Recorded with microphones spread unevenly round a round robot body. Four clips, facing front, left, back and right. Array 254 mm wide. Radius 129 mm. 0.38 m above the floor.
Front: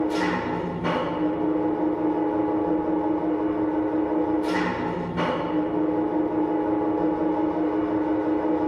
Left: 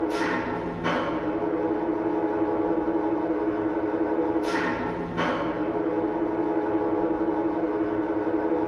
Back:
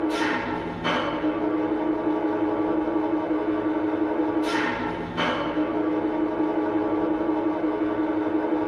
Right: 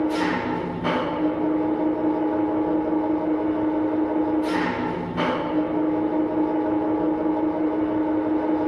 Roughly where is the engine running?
Right.